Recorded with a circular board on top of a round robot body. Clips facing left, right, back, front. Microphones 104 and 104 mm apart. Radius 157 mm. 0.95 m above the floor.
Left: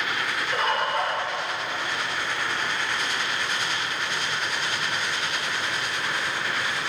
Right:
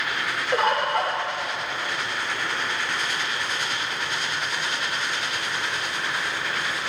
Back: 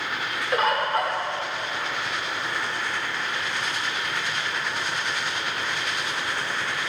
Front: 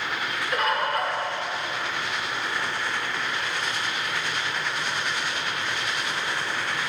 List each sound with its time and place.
0.5 s a bird: 120° right, 0.6 m